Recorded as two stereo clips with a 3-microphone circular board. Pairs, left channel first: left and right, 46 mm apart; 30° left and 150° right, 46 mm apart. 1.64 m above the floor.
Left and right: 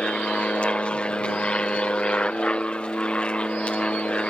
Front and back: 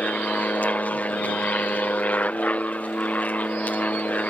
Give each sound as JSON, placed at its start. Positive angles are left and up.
{"t": 0.0, "sound": "an aircraft", "azimuth_deg": 45}